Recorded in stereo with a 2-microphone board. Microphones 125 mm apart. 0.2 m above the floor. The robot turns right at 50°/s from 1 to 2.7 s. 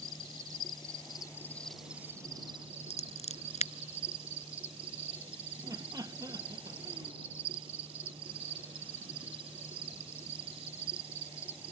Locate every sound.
0.0 s an insect: 140° left; by 11.7 s 135° right
2.9 s scissors: 65° left (ahead or behind)
5.6 s laughter: 30° right (ahead or behind)